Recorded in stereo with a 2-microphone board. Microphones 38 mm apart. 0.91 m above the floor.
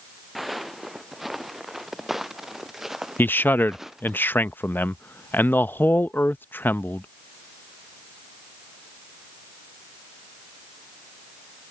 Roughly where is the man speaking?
Left.